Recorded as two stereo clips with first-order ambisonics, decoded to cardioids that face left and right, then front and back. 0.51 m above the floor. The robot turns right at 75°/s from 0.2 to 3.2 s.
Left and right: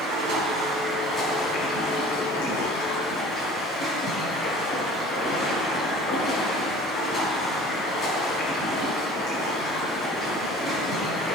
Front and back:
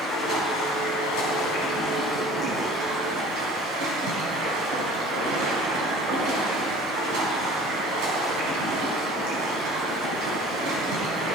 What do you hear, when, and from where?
0.0 s running water: 65° right, 4.5 m; by 11.4 s 160° left, 4.5 m